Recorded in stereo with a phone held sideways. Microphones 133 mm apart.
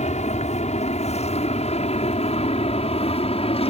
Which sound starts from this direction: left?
An aircraft, at 0.0 s.